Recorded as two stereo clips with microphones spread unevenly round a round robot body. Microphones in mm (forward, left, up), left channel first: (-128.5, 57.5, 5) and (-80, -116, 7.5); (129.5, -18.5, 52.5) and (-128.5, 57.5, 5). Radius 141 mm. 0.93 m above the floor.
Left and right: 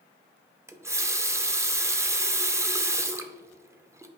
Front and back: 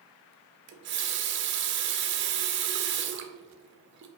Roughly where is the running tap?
Behind right.